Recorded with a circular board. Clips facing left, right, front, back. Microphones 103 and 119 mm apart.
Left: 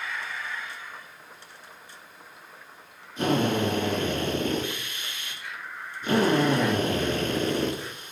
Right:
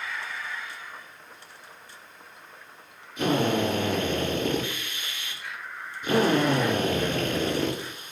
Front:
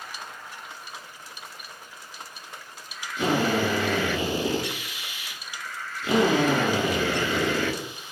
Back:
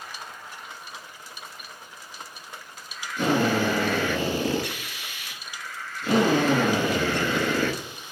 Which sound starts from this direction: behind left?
A drill, at 3.2 s.